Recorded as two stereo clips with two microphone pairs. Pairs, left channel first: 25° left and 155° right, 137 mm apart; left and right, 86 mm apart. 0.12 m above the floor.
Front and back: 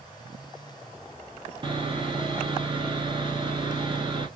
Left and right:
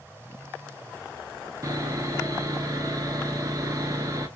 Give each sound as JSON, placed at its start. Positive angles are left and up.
{"t": 1.6, "sound": "sawing", "azimuth_deg": -120, "distance_m": 0.9}